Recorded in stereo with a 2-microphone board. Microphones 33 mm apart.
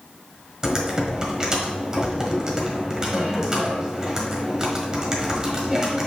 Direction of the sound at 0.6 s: 20° right (ahead or behind).